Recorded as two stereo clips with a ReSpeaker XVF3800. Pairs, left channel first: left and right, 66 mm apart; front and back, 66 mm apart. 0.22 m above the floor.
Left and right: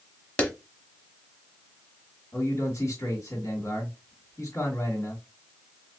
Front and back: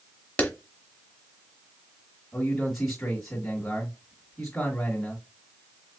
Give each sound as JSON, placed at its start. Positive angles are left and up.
{"t": 0.4, "sound": "a clap", "azimuth_deg": 40, "distance_m": 1.1}
{"t": 2.3, "sound": "a man speaking", "azimuth_deg": 85, "distance_m": 2.5}